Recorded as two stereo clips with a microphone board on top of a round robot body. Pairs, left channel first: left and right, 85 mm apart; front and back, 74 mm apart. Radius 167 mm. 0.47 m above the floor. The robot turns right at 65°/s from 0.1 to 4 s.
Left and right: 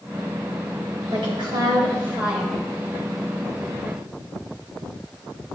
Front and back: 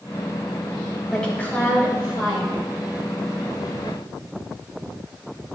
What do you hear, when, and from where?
1.1 s a woman speaking: 90° right, 4.5 m; by 2.6 s 10° left, 4.5 m